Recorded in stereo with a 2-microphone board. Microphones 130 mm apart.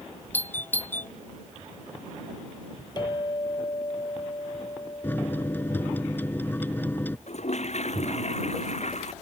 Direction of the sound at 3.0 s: 35° left (ahead or behind).